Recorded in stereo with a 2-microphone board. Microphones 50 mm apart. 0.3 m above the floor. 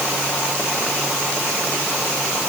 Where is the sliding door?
I don't hear a sliding door.